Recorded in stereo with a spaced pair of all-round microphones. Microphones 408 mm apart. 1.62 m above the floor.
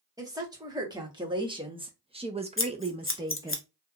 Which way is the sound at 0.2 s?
10° right (ahead or behind).